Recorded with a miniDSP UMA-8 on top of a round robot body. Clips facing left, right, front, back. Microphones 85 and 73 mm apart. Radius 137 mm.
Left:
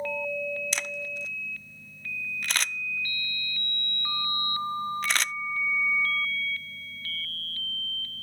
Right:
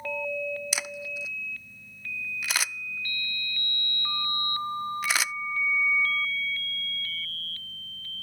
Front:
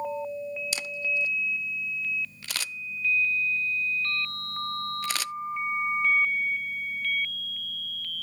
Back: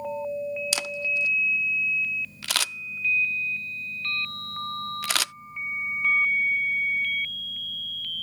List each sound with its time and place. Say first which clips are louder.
0.7 s a camera shutter: even, back 2 dB; 170° right